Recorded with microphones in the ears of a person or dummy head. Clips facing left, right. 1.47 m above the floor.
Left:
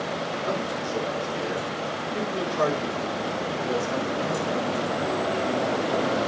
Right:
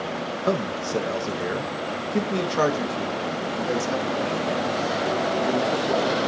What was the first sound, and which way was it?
A man speaking, 65° right (ahead or behind).